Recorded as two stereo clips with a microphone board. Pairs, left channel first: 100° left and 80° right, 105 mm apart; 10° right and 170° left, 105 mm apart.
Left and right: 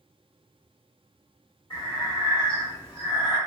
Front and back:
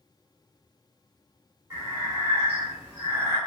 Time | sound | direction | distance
1.7 | breathing | 120° left | 1.5 m